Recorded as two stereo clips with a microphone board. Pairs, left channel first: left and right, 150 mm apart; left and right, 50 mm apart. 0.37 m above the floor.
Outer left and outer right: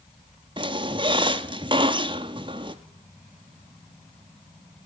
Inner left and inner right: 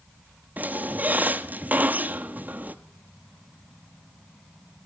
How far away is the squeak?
About 0.7 m.